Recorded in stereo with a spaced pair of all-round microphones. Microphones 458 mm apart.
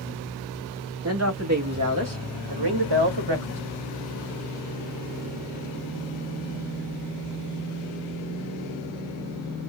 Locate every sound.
1.0 s a woman speaking: 30° right (ahead or behind), 2.5 m; by 3.6 s 65° right (ahead or behind), 1.8 m